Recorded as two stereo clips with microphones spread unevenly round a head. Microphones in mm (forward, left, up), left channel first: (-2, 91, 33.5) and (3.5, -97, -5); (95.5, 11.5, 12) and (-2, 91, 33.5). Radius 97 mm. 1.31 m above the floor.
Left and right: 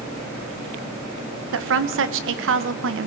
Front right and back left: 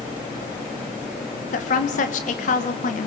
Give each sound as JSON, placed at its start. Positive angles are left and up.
{"t": 1.5, "sound": "a woman speaking", "azimuth_deg": -75, "distance_m": 1.3}